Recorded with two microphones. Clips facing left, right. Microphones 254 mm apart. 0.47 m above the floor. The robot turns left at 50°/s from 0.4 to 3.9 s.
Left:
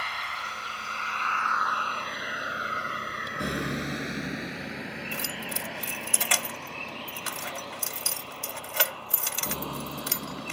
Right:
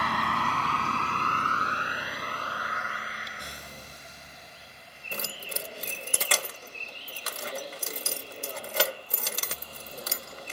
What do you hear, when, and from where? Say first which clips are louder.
0.0 s a vehicle: right 11 dB; 65° right (ahead or behind); by 10.5 s 75° left (ahead or behind)
5.1 s keys jangling: left 3 dB; 45° right (ahead or behind)